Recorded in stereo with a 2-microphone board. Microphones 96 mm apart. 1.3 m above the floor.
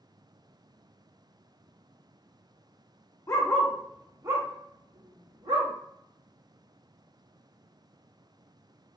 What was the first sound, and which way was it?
A dog barking, 30° left (ahead or behind).